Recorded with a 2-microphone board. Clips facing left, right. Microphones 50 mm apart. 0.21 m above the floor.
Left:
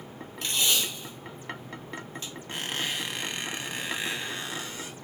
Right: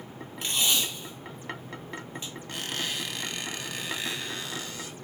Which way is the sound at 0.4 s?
10° right (ahead or behind).